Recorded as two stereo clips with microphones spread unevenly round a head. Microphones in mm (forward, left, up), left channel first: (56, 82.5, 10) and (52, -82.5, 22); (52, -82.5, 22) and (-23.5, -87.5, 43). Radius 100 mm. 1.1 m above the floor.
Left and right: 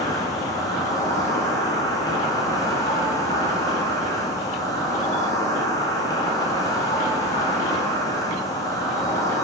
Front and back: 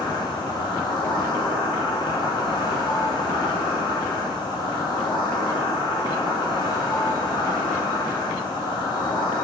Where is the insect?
20° left, 2 m.